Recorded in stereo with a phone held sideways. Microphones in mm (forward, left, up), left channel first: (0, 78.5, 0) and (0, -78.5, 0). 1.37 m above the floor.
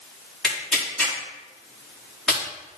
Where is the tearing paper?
Centre (ahead or behind), 4 m.